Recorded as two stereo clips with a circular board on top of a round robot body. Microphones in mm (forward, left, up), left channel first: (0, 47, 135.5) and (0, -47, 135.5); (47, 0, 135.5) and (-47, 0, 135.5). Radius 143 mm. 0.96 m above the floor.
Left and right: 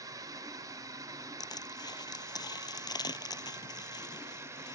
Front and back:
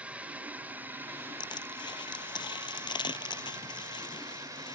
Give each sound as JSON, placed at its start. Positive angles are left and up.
{"t": 0.0, "sound": "a drone", "azimuth_deg": -110}
{"t": 1.4, "sound": "crushing", "azimuth_deg": 45}